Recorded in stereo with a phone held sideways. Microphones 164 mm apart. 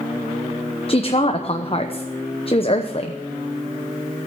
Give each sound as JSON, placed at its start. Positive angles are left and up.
{"t": 0.9, "sound": "a woman speaking", "side_deg": 40, "distance_m": 0.9}